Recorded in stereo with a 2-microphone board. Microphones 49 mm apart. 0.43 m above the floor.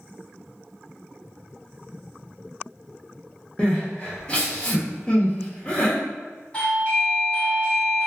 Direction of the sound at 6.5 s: 25° left (ahead or behind).